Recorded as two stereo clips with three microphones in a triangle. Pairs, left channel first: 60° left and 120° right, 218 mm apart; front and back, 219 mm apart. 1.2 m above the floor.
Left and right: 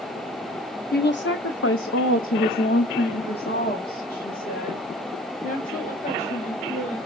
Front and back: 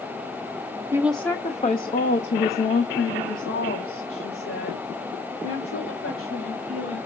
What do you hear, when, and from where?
0.9 s a woman speaking: 100° left, 0.8 m; by 7.0 s straight ahead, 5 m